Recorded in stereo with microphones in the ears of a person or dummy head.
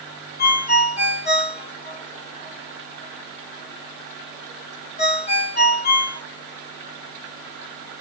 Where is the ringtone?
45° left (ahead or behind), 1.3 m.